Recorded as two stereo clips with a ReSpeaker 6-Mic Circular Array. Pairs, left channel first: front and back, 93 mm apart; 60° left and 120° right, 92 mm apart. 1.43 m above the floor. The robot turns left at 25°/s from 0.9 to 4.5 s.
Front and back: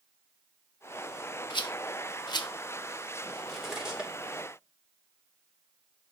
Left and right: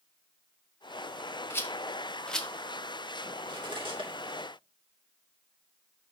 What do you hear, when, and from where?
1.5 s a rattle: straight ahead, 1.1 m; by 2.5 s 25° right, 1.1 m
3.4 s cutlery clinking: 85° right, 2.5 m; by 4.5 s 110° right, 2.5 m